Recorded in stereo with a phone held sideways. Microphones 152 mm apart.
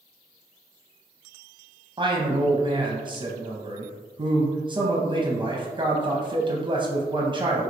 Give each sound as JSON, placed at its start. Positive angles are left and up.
{"t": 2.0, "sound": "a man speaking", "side_deg": -30, "distance_m": 0.5}